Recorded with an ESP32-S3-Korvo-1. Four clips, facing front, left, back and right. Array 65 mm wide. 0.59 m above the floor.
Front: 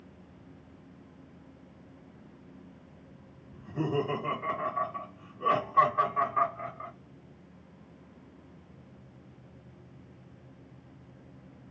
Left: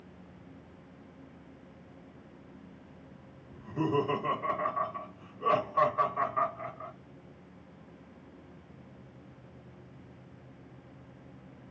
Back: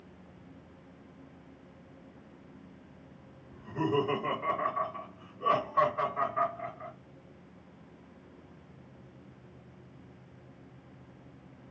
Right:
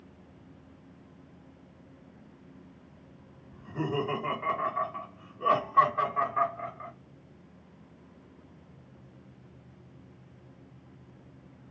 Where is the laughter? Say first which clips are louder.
Left 2 dB, back 1 dB; 125° right, 1.7 m; by 6.9 s 50° right, 2 m.